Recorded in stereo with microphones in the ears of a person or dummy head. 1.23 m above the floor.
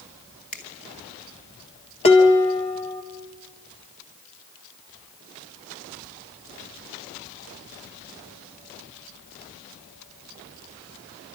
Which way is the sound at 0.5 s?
40° left (ahead or behind).